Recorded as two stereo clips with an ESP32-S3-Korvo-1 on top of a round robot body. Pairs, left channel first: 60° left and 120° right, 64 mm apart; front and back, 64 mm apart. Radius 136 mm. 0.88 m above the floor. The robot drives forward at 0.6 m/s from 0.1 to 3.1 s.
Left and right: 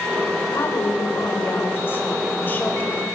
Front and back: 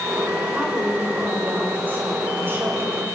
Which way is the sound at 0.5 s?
105° left.